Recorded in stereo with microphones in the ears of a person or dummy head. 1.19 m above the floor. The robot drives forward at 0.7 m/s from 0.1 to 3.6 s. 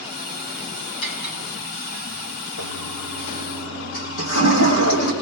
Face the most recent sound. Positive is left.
turn(degrees=75)  # may be behind; listen again after turning